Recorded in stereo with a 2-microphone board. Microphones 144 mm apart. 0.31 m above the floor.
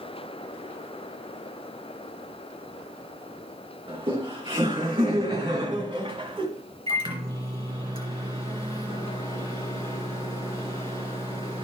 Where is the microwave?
35° right (ahead or behind), 3.5 m.